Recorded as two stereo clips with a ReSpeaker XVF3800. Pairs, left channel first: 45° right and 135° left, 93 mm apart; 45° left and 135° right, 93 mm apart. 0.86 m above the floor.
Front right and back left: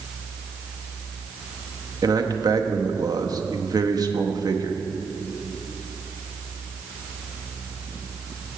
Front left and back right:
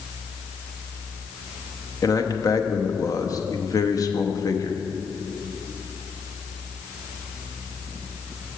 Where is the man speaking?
95° left, 0.8 m.